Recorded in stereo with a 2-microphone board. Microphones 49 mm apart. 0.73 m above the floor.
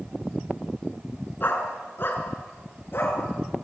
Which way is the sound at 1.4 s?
45° left (ahead or behind).